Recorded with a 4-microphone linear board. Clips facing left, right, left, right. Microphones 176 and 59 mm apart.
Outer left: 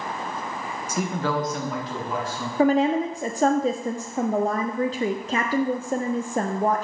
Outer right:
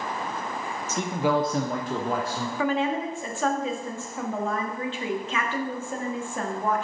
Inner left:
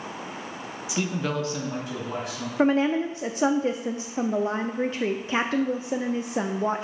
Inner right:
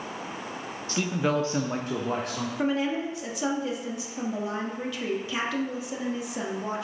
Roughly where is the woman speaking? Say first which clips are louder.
Outer left 7 dB, inner left 6 dB; left.